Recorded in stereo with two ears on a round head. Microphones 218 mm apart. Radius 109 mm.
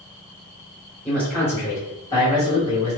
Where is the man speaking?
5° left (ahead or behind), 1.3 m; by 3.0 s 20° left (ahead or behind), 1.5 m.